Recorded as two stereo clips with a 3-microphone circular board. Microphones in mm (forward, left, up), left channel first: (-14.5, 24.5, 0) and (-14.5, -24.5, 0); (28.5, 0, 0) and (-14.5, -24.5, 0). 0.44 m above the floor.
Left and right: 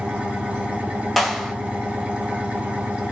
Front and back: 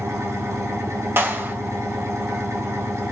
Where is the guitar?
No guitar in this recording.